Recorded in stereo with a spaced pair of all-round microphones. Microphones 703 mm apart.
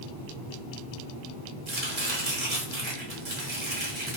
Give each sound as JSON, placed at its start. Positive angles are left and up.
{"t": 1.7, "sound": "chopping", "side_deg": -40, "distance_m": 1.2}